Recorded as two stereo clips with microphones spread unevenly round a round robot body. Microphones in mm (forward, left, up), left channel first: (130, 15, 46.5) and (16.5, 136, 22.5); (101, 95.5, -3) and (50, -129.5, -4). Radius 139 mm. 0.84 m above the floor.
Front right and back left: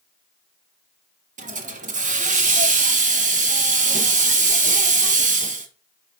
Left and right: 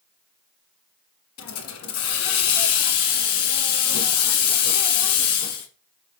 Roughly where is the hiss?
Left.